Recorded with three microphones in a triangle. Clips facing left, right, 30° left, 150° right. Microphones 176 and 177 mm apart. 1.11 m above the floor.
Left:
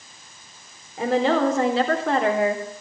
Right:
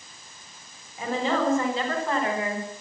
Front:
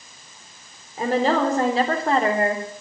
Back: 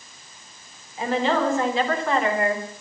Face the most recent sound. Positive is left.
turn(degrees=90)